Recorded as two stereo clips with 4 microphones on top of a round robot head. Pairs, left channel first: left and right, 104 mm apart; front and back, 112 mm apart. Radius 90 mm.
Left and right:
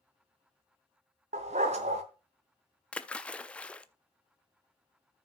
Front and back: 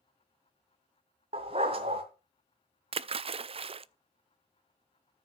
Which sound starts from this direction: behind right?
A dog barking, at 1.3 s.